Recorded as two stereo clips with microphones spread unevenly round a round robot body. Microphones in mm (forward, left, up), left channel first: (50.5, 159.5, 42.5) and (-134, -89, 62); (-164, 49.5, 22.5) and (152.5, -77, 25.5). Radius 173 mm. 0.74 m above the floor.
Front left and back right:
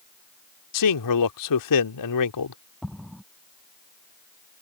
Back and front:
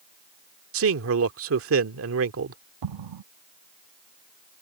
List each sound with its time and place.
0.7 s a man speaking: 30° left
2.8 s an explosion: 35° right